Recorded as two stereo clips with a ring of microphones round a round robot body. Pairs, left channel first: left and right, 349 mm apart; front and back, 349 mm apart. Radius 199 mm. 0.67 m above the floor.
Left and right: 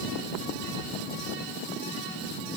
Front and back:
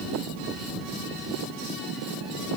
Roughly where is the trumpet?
No trumpet in this recording.